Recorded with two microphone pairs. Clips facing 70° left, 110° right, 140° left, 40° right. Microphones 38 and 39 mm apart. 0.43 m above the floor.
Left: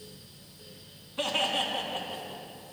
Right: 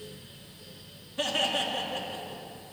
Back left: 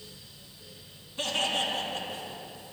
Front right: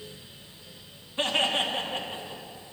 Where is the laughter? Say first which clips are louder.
Even, front right 3 dB; 20° left, 3.5 m; by 2.4 s 25° left, 3 m.